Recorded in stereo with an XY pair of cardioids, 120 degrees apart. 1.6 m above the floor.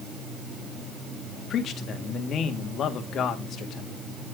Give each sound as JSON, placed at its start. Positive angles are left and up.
{"t": 1.5, "sound": "a man speaking", "azimuth_deg": 55, "distance_m": 2.5}